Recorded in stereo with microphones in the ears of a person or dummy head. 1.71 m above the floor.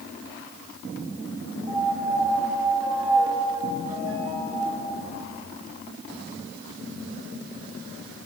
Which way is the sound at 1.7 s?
25° right (ahead or behind).